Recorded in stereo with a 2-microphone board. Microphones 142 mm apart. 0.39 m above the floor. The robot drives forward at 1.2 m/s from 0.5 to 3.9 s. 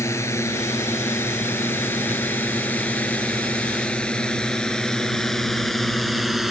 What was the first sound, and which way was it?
A drone, 20° left (ahead or behind).